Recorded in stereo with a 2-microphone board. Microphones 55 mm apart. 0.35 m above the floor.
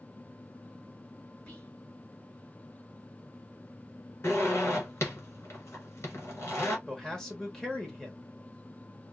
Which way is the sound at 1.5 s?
25° left (ahead or behind).